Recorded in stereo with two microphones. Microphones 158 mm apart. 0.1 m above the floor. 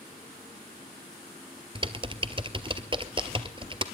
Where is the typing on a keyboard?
35° right (ahead or behind), 0.8 m.